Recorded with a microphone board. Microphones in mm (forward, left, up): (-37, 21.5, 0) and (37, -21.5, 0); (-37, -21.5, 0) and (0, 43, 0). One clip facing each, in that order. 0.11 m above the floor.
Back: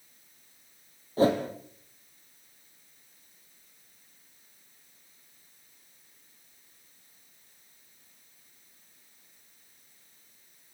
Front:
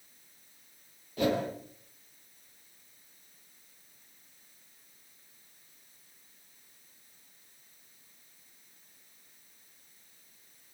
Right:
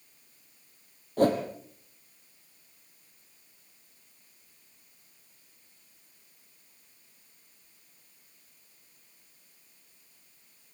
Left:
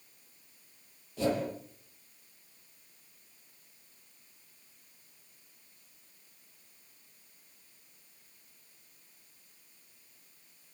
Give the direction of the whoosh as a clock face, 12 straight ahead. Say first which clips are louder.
Back 5 dB, right 6 dB; 5 o'clock.